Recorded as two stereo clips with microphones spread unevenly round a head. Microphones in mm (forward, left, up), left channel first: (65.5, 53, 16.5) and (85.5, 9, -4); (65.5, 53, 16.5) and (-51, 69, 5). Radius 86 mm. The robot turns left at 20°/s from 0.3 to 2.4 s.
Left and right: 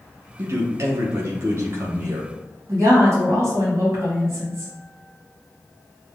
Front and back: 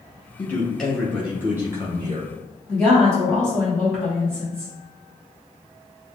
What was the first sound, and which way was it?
A man speaking, 85° right.